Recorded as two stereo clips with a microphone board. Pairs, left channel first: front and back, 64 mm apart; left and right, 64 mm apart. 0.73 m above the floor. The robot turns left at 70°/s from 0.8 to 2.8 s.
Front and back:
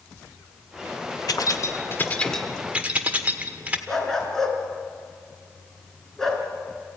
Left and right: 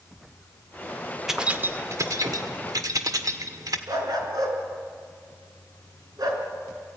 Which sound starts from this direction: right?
A dog barking, at 3.9 s.